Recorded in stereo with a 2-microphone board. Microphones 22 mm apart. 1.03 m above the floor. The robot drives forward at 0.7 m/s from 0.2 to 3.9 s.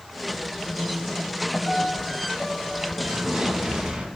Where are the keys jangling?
I don't hear keys jangling.